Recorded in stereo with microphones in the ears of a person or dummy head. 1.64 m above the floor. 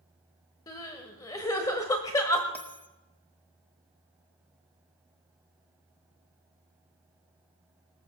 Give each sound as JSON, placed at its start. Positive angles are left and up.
{"t": 0.7, "sound": "crying", "side_deg": 15, "distance_m": 1.6}
{"t": 2.5, "sound": "a bell", "side_deg": 10, "distance_m": 1.1}